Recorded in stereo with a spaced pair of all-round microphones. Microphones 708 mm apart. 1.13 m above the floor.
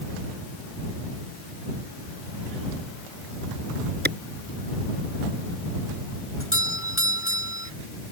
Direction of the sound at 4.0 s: 15° right (ahead or behind).